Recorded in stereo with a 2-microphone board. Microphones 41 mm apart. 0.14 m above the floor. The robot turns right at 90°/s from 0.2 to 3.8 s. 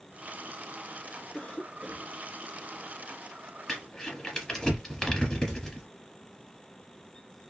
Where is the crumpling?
10° left (ahead or behind), 1.7 m; by 5.9 s 15° left (ahead or behind), 1.7 m.